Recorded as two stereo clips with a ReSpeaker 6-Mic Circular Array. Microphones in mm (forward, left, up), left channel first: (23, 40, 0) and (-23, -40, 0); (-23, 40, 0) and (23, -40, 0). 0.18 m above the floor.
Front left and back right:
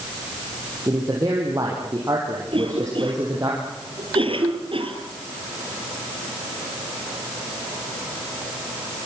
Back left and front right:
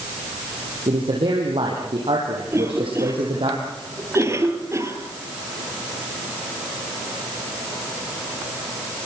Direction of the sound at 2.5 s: 120° right.